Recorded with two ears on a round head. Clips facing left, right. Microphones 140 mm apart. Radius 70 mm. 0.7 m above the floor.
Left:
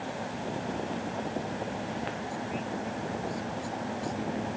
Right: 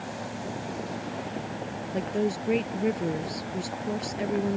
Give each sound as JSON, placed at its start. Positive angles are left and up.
{"t": 1.9, "sound": "a woman speaking", "side_deg": -80}